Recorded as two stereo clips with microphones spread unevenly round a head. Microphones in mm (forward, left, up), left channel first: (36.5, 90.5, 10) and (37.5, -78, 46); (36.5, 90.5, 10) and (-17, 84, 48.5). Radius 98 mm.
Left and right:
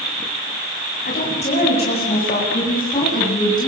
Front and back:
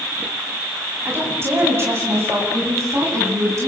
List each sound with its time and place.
1.1 s a woman speaking: 145° left, 7.5 m; by 3.7 s 160° left, 10 m